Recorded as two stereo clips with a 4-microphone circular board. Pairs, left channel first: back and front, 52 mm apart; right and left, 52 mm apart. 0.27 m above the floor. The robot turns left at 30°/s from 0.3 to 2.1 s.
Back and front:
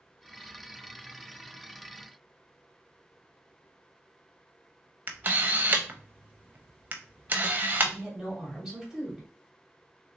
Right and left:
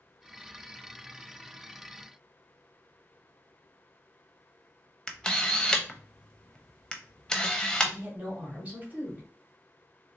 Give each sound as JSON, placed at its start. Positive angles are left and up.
{"t": 5.1, "sound": "a camera shutter", "azimuth_deg": -25, "distance_m": 0.6}
{"t": 7.8, "sound": "a woman speaking", "azimuth_deg": 75, "distance_m": 1.6}